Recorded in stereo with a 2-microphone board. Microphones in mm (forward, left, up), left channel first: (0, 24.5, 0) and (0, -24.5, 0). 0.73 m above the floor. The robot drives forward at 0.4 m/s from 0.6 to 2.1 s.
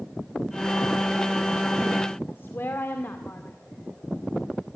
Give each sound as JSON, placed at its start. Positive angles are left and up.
{"t": 2.3, "sound": "a woman speaking", "side_deg": 55, "distance_m": 1.9}